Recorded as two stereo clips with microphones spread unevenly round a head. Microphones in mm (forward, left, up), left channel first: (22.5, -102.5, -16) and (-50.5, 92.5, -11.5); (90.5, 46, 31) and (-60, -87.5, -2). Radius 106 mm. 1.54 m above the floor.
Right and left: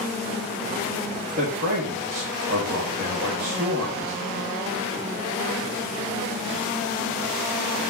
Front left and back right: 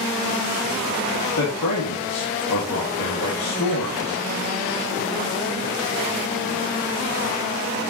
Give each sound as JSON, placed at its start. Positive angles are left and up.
{"t": 1.4, "sound": "a man speaking", "azimuth_deg": 65, "distance_m": 2.0}